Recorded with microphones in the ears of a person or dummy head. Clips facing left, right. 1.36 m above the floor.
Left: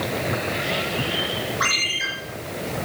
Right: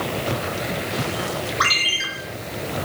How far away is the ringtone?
About 4.5 m.